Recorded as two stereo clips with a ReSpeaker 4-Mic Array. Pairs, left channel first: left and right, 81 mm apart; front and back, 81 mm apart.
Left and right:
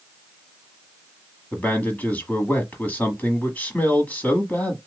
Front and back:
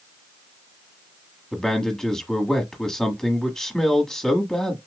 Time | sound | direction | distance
1.5 | a man speaking | 70° left | 1.3 m